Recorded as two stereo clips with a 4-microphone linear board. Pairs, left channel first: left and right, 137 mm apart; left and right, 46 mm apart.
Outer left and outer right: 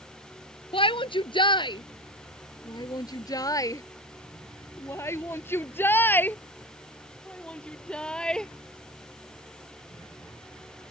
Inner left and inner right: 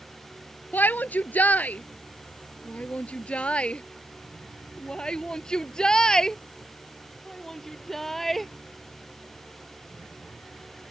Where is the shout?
45° left (ahead or behind); by 8.5 s 5° left (ahead or behind).